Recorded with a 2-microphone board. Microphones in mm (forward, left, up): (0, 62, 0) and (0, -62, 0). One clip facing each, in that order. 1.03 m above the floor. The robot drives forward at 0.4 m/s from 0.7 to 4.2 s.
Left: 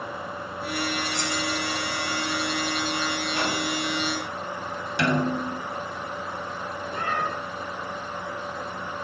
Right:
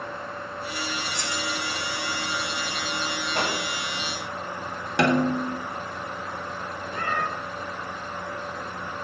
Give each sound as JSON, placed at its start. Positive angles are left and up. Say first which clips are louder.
{"t": 1.1, "sound": "keys jangling", "louder": "left 3 dB", "side_deg": 70, "distance_m": 1.6}
{"t": 3.4, "sound": "a microwave", "louder": "right 2 dB", "side_deg": -60, "distance_m": 6.0}
{"t": 5.0, "sound": "a snare drum", "louder": "right 3 dB", "side_deg": -70, "distance_m": 1.7}
{"t": 6.9, "sound": "a cat meowing", "louder": "even", "side_deg": 10, "distance_m": 1.5}